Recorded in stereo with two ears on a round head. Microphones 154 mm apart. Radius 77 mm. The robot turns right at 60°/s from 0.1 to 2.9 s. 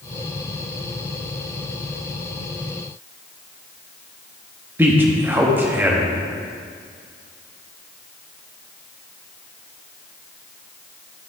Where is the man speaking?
10° right (ahead or behind), 1.2 m.